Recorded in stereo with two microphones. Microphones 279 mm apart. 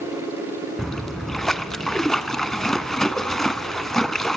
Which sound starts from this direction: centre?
A splash, at 0.8 s.